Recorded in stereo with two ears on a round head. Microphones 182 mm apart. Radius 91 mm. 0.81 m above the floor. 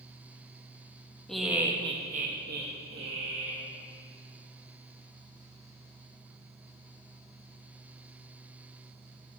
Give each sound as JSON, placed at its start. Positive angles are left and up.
{"t": 1.3, "sound": "laughter", "side_deg": 5, "distance_m": 1.0}